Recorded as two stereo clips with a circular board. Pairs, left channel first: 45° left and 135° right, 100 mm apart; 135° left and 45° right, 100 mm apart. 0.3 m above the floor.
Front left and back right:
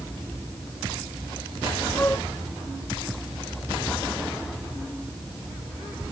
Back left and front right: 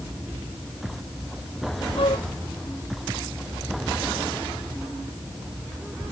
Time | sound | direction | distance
2.0 | a flute | 115° left | ?